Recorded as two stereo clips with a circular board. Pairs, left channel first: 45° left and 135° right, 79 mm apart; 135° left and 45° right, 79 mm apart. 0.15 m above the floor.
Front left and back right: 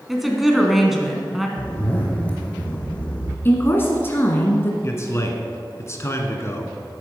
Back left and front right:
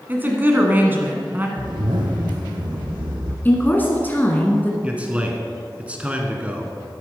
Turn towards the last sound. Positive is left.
turn(degrees=20)